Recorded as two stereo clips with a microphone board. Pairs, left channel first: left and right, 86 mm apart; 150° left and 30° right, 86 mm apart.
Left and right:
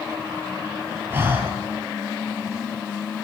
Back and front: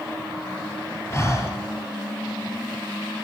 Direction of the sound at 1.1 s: 155° right.